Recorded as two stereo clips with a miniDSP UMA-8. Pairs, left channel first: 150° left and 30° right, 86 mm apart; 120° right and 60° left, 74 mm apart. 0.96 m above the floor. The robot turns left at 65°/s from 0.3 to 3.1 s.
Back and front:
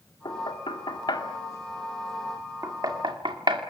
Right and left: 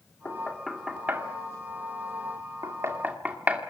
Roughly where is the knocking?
Behind.